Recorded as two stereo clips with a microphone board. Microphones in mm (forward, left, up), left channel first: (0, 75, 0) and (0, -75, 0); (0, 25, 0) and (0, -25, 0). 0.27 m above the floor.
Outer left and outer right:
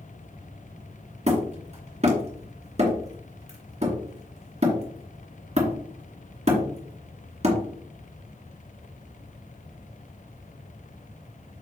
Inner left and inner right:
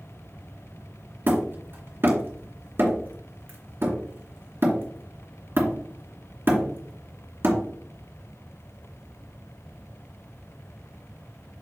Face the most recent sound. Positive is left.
turn(degrees=-45)  # may be behind; listen again after turning